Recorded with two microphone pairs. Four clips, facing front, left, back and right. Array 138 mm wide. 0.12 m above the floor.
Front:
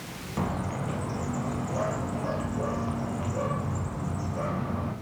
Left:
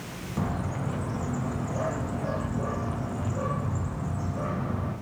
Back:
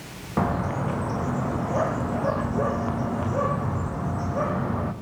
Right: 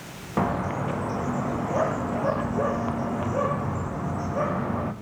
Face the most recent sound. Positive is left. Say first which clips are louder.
# right 6 dB, back 6 dB
turn(degrees=-130)